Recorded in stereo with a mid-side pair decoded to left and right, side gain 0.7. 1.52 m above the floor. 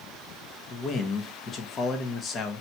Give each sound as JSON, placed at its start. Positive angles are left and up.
{"t": 0.7, "sound": "a man speaking", "azimuth_deg": 30, "distance_m": 1.1}